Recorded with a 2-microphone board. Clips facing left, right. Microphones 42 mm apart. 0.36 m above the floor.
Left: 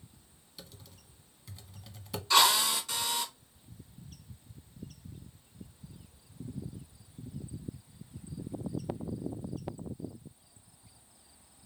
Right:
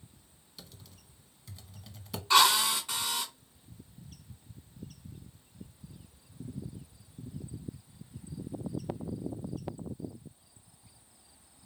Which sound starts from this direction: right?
A drill, at 2.3 s.